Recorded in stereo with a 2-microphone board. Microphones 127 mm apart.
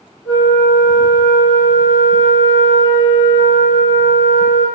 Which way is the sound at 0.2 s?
25° right (ahead or behind).